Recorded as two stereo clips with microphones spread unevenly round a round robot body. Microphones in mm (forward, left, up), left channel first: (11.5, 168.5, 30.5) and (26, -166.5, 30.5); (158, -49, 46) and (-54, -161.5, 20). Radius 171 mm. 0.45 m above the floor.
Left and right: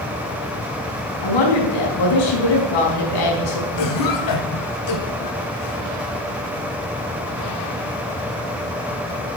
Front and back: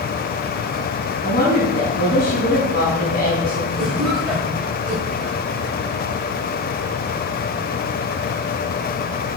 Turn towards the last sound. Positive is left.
turn(degrees=120)